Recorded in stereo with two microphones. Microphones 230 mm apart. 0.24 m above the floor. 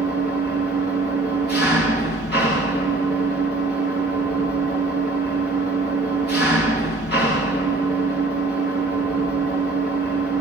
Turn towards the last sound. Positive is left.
turn(degrees=45)  # may be behind; listen again after turning